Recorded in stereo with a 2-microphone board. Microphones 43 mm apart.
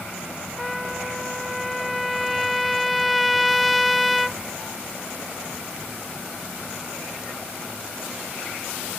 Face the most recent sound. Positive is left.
turn(degrees=0)  # may be behind; listen again after turning